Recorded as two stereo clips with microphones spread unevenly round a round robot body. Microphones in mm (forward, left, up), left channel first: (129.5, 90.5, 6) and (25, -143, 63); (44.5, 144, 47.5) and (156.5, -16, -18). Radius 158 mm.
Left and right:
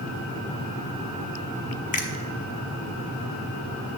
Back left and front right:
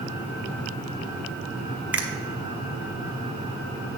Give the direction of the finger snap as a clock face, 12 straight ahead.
11 o'clock.